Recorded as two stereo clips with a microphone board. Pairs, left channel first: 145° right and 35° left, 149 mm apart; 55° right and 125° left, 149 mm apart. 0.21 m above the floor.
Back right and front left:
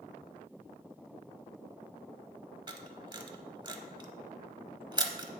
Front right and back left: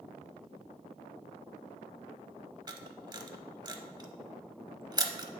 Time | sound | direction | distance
2.7 | a camera shutter | 75° left | 0.7 m